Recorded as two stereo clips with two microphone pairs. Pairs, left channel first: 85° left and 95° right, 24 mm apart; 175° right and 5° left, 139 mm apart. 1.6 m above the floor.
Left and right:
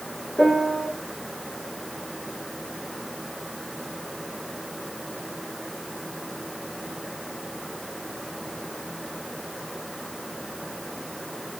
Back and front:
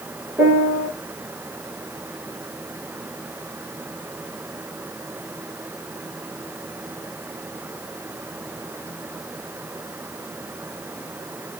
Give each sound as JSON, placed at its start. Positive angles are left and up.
{"t": 0.4, "sound": "a piano", "azimuth_deg": 90, "distance_m": 3.0}